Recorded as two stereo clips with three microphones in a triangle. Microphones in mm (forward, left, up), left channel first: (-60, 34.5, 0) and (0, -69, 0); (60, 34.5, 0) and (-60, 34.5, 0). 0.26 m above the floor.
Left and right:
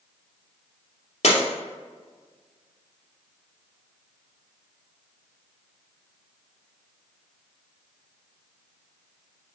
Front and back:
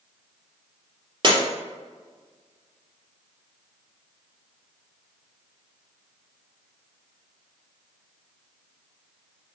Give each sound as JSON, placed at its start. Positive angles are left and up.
{"t": 1.2, "sound": "breaking glass", "azimuth_deg": 130, "distance_m": 2.5}